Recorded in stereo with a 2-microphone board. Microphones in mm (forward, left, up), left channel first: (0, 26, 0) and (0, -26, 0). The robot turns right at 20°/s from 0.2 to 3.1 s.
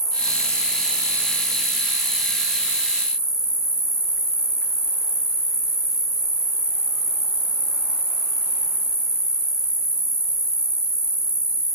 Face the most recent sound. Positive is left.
turn(degrees=-10)